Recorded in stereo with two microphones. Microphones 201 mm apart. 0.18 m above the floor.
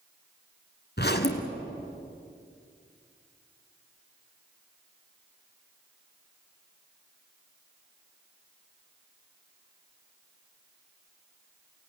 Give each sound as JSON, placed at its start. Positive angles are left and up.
{"t": 1.0, "sound": "a zipper", "side_deg": 55, "distance_m": 1.8}